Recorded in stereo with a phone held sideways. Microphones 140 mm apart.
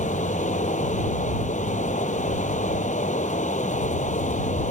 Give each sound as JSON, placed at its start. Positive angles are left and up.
{"t": 0.0, "sound": "running water", "side_deg": 60}